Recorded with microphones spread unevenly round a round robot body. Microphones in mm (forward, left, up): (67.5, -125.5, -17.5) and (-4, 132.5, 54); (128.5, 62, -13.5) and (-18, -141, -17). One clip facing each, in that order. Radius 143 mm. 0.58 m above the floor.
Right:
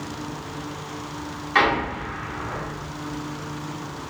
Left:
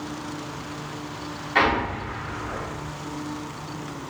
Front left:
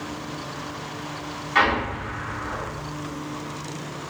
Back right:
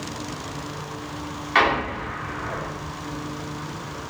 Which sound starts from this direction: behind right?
An explosion, at 1.6 s.